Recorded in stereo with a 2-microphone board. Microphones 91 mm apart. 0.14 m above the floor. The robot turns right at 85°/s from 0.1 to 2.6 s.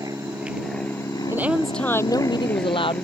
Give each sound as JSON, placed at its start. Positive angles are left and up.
{"t": 0.0, "sound": "an aircraft", "azimuth_deg": -45}
{"t": 1.3, "sound": "a woman speaking", "azimuth_deg": -30}